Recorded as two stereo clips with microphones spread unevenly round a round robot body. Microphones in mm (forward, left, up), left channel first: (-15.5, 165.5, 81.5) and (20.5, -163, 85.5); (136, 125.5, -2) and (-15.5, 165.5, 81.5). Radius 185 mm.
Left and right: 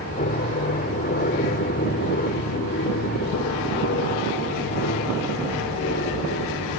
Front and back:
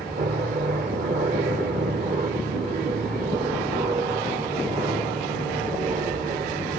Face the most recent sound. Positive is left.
turn(degrees=120)